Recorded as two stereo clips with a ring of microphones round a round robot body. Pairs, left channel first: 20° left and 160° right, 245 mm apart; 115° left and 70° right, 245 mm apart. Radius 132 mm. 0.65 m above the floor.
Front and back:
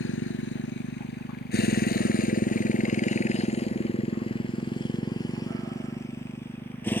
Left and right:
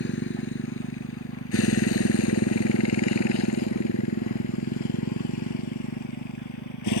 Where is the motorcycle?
65° left; by 7.0 s 105° left.